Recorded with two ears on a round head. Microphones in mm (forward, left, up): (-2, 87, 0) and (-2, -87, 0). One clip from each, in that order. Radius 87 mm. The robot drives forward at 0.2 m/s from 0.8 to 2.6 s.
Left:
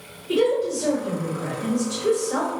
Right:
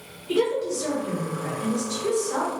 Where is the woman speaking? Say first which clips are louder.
Left 3 dB; 30° right (ahead or behind), 1.3 m; by 2.5 s 25° right (ahead or behind), 1.6 m.